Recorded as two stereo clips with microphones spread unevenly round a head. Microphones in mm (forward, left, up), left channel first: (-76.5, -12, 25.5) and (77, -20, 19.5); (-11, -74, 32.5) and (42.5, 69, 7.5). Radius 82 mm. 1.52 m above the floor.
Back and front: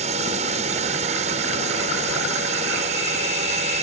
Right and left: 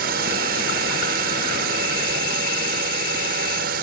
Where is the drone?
45° left.